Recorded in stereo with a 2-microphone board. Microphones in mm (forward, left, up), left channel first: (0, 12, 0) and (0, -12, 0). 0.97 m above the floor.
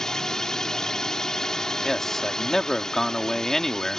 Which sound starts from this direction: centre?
A man speaking, at 1.8 s.